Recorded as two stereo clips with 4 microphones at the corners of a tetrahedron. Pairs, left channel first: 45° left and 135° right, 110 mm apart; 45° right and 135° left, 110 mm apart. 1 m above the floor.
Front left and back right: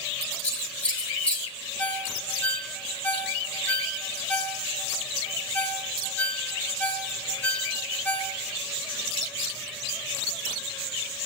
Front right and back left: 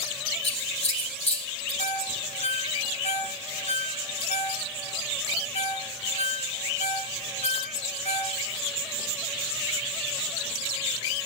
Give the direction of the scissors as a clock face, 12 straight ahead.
1 o'clock.